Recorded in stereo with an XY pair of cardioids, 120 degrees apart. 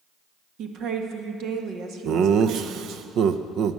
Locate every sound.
0.6 s a woman speaking: 70° right, 1.5 m
2.0 s laughter: 65° right, 0.6 m